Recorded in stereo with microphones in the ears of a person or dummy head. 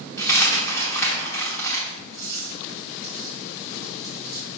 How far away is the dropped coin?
About 1.3 m.